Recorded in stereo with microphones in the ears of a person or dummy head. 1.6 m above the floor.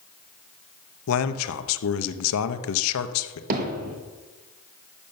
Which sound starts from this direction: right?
Hammering, at 3.5 s.